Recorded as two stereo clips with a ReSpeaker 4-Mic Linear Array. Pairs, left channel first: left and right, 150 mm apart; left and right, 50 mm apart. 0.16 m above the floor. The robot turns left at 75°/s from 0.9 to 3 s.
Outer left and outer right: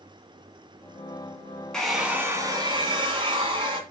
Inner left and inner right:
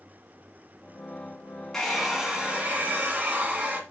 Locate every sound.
1.7 s a hair dryer: 10° left, 1.8 m; by 3.8 s 85° right, 1.8 m